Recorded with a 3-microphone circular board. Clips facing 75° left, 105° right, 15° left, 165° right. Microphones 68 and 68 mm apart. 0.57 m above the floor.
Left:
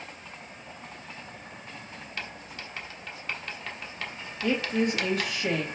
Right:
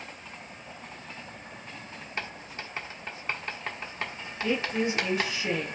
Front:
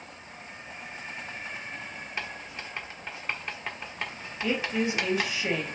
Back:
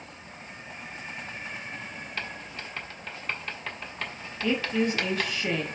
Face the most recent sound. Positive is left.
turn(degrees=90)